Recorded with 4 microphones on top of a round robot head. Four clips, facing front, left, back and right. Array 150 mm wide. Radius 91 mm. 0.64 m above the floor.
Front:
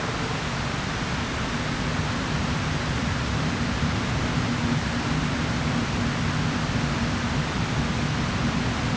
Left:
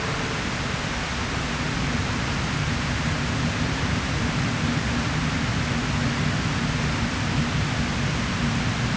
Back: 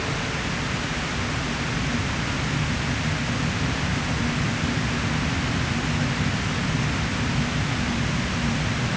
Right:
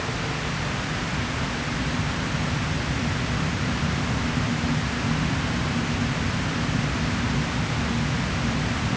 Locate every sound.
Only background noise.